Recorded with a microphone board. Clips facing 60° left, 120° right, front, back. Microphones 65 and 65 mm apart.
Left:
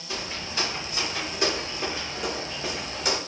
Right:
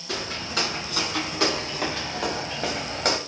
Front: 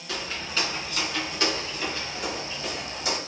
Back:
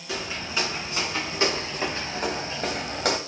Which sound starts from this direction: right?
Footsteps, at 0.1 s.